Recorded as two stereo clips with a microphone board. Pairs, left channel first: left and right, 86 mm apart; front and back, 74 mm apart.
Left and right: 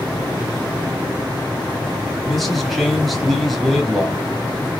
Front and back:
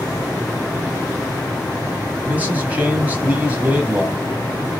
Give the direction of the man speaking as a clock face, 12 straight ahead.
6 o'clock.